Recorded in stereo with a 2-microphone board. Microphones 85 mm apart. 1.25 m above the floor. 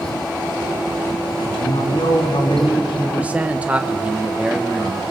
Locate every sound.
1.4 s a man speaking: 80° left, 3 m
3.2 s a man speaking: 15° right (ahead or behind), 1.0 m